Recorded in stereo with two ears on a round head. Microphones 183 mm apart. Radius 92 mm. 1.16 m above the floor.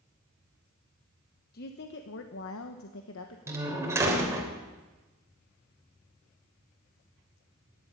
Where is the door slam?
15° right (ahead or behind), 3.5 m.